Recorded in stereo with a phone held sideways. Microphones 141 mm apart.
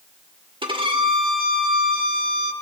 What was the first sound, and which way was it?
A violin, 40° right (ahead or behind).